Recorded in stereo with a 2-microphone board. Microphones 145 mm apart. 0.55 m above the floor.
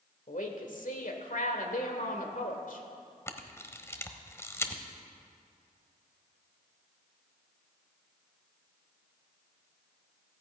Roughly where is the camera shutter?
Centre.